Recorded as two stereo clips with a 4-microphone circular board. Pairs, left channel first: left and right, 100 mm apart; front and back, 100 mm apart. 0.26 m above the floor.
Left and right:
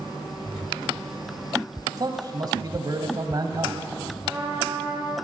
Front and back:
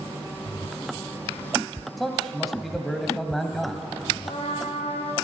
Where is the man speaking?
90° right, 1.5 m.